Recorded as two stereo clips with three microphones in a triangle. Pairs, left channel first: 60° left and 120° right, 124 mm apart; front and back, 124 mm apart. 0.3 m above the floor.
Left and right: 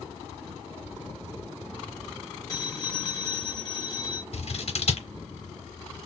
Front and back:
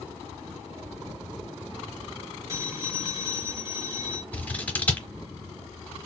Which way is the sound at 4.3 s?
75° left.